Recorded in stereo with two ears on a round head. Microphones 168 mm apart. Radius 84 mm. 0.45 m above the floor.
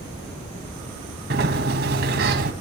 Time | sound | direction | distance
1.3 | a sliding door | 55° right (ahead or behind) | 2.5 m